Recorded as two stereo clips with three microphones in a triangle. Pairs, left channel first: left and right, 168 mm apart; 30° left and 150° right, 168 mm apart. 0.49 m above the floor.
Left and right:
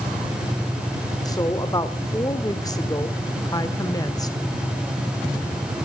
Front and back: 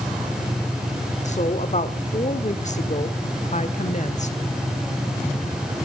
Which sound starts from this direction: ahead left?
A woman speaking, at 1.2 s.